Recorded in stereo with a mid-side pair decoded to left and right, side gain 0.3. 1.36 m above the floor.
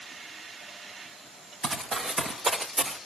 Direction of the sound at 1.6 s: 70° right.